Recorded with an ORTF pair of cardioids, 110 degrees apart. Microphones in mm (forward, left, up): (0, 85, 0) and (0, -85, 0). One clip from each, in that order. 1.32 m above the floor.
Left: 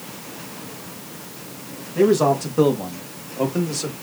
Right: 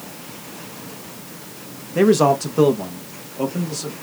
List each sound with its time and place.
1.9 s a man speaking: 35° right, 0.9 m; by 3.9 s 15° left, 1.7 m